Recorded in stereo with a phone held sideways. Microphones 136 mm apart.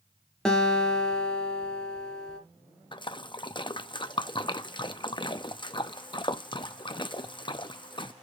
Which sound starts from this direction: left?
A splash, at 2.9 s.